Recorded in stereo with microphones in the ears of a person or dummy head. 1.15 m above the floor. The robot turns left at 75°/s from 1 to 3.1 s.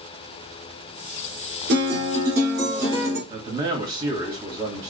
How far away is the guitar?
About 2 m.